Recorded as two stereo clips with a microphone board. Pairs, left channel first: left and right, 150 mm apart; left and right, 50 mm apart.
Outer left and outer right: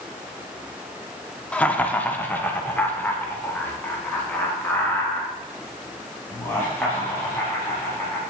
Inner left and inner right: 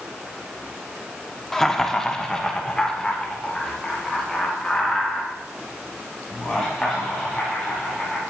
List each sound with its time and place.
1.5 s laughter: 10° left (ahead or behind), 0.7 m; by 8.2 s 15° left (ahead or behind), 4 m